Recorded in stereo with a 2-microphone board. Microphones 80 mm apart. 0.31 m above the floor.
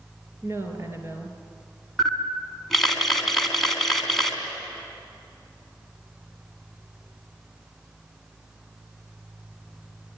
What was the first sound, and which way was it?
A woman speaking, 35° right (ahead or behind).